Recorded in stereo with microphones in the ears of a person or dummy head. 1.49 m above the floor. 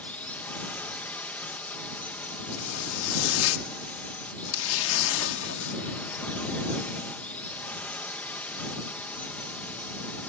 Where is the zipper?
80° left.